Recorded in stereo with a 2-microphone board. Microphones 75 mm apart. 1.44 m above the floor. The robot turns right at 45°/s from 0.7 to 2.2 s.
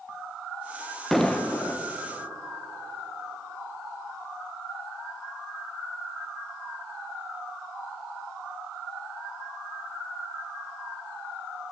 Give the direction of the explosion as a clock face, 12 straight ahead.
12 o'clock.